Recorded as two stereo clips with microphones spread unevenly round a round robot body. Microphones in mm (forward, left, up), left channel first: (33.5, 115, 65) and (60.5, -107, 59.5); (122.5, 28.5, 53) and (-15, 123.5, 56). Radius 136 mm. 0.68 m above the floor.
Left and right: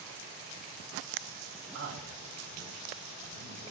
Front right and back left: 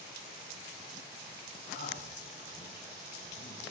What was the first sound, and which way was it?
A man speaking, 65° right.